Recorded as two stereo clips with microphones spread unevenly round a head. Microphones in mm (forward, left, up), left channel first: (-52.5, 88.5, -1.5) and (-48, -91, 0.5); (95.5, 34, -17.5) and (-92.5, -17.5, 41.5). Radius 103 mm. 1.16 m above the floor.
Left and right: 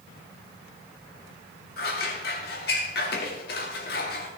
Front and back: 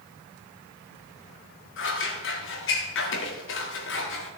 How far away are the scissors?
About 1.8 m.